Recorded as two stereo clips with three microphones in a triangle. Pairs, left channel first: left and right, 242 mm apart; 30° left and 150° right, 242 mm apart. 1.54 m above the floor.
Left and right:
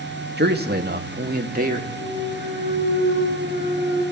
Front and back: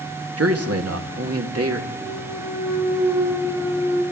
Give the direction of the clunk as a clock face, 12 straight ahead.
8 o'clock.